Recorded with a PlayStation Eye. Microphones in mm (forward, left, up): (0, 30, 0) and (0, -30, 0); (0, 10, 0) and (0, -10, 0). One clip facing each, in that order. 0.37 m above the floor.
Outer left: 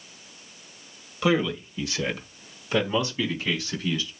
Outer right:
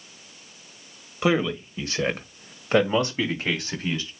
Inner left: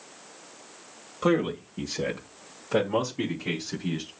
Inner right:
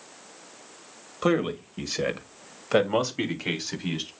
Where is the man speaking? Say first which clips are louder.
Outer right 1 dB, even; 25° right (ahead or behind), 2 m; by 4.1 s 50° right (ahead or behind), 3 m.